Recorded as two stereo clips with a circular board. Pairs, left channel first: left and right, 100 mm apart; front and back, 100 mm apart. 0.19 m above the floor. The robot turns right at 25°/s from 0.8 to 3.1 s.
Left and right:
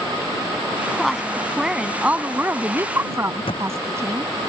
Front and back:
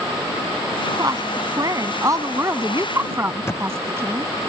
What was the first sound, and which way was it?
A woman speaking, 175° left.